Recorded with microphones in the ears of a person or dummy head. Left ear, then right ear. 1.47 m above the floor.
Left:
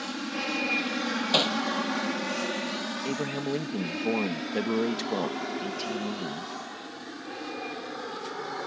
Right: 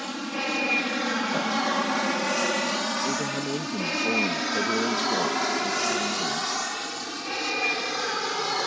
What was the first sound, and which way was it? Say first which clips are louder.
An aircraft: right 2 dB; 5° right (ahead or behind).